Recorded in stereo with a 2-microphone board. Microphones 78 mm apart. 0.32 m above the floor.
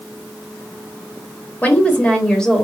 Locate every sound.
1.6 s a woman speaking: 20° left (ahead or behind), 1.2 m; by 2.6 s 5° left (ahead or behind), 1.2 m